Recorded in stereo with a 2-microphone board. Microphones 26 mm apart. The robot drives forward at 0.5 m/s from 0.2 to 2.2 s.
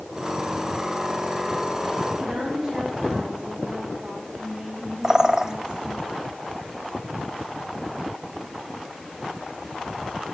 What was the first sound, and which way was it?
A woman speaking, 30° right (ahead or behind).